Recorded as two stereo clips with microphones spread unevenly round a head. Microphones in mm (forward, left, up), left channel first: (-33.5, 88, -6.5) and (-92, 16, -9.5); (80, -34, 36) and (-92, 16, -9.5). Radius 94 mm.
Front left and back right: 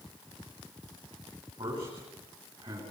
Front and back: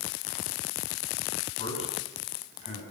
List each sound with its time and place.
1.6 s a man speaking: 65° right, 9.5 m